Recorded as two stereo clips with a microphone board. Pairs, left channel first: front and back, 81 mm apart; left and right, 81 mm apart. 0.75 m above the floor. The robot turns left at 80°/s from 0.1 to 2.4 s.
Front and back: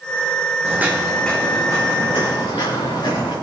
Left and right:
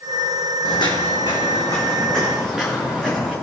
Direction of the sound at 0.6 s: 125° left.